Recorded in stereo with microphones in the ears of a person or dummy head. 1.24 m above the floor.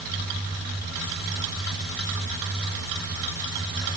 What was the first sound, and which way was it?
Only background noise.